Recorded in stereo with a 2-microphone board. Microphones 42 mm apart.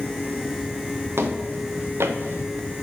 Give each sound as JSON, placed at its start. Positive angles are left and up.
{"t": 1.2, "sound": "footsteps", "side_deg": -85, "distance_m": 2.5}